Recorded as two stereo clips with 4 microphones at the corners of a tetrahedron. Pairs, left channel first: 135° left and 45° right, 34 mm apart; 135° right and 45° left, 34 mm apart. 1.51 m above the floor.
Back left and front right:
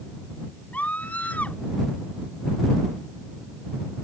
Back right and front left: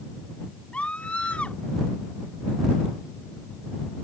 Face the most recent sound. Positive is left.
turn(degrees=170)